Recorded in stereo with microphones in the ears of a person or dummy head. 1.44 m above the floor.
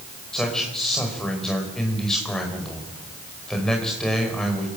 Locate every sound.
0.3 s a man speaking: 5° left (ahead or behind), 5.5 m